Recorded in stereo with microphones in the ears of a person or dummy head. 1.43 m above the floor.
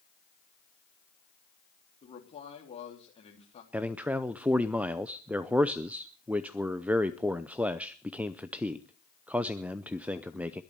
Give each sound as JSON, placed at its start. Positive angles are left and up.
{"t": 2.0, "sound": "a man speaking", "side_deg": 35, "distance_m": 3.5}
{"t": 3.7, "sound": "a man speaking", "side_deg": -10, "distance_m": 0.5}